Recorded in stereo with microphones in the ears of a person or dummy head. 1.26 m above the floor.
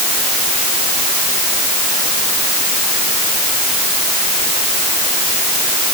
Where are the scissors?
I don't hear scissors.